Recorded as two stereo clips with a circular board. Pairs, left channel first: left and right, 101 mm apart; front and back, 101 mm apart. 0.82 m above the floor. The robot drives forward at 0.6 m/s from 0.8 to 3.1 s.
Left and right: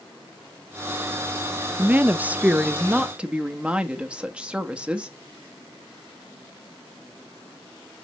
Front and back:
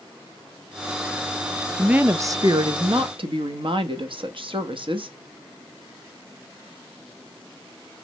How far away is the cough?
I don't hear a cough.